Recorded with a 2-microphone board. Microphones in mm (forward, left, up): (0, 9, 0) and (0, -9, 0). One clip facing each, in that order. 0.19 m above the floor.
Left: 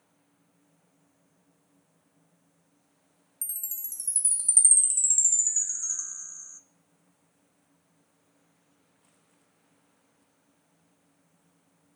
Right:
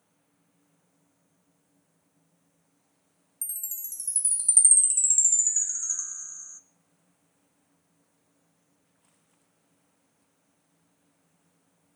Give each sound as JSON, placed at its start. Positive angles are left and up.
{"t": 3.4, "sound": "a chime", "side_deg": -10, "distance_m": 0.6}